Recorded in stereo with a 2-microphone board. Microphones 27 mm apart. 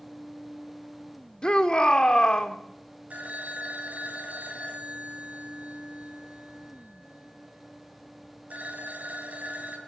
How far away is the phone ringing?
About 3.5 m.